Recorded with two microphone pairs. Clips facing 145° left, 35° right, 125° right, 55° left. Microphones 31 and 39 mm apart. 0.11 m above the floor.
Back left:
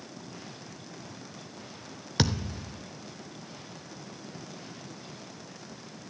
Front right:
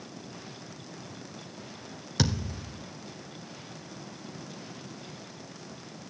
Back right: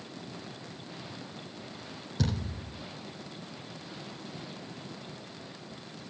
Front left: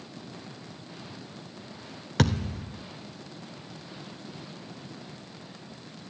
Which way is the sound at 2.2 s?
75° left.